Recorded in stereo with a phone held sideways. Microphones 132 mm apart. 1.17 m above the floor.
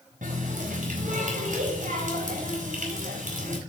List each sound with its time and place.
0.2 s a running tap: 85° right, 4 m